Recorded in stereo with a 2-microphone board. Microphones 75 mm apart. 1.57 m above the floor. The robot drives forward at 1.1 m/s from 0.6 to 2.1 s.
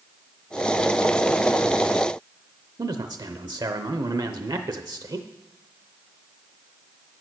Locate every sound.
2.8 s a man speaking: 70° right (ahead or behind), 0.7 m